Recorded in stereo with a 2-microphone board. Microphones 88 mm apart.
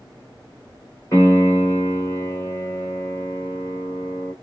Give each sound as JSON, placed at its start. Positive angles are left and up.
{"t": 1.1, "sound": "a piano", "side_deg": 35, "distance_m": 2.5}